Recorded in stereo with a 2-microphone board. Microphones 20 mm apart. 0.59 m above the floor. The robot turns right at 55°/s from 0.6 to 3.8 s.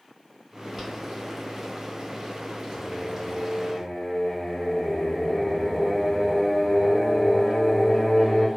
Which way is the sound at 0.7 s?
Centre (ahead or behind).